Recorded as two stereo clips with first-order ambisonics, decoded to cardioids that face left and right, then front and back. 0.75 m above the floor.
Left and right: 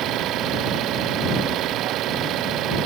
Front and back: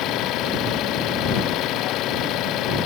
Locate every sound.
0.0 s an engine running: 45° right